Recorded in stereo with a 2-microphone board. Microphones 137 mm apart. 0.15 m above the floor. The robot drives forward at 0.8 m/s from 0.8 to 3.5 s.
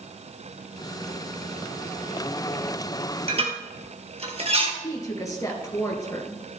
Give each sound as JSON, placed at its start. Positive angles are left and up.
{"t": 3.3, "sound": "dishes clattering", "side_deg": -45, "distance_m": 2.0}
{"t": 4.8, "sound": "a woman speaking", "side_deg": 25, "distance_m": 2.0}